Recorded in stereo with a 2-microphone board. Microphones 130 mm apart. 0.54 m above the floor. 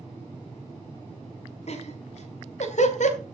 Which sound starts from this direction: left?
Laughter, at 1.7 s.